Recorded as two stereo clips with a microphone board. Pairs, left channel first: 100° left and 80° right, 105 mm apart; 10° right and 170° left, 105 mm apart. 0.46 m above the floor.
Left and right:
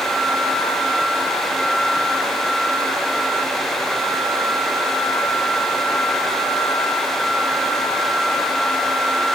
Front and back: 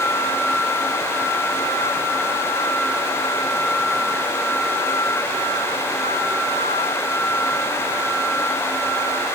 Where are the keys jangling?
No keys jangling in this recording.